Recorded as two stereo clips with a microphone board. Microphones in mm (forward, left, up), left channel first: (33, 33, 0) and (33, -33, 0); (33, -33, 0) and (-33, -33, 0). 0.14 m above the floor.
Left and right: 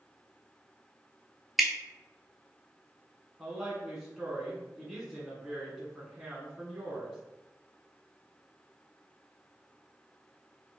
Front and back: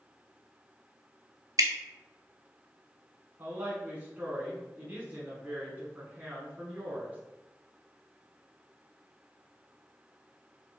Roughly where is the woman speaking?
Behind.